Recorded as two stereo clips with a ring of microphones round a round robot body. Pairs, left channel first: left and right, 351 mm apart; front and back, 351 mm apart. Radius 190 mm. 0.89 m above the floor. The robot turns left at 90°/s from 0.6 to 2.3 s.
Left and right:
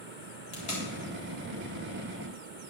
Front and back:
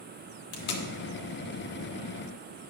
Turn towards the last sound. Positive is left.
turn(degrees=-130)